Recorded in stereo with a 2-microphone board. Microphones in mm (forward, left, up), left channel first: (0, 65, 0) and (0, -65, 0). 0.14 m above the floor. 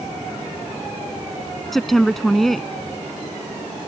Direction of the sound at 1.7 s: Centre (ahead or behind).